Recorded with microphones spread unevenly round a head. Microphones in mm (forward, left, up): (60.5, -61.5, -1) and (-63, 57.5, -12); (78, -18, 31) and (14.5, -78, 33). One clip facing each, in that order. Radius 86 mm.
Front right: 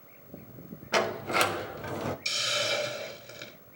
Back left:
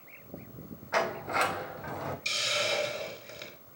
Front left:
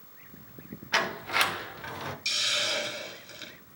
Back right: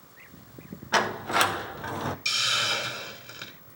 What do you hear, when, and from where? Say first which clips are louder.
0.9 s a sliding door: front right 2 dB, back right 4 dB; 85° right, 0.8 m
2.2 s a hiss: even, back right 4 dB; 115° right, 3 m